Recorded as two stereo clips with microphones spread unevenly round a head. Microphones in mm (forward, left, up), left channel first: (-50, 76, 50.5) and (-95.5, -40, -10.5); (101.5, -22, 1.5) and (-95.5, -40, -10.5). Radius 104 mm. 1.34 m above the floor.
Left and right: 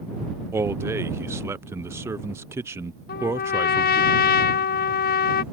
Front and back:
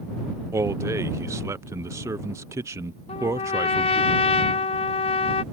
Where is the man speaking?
110° right.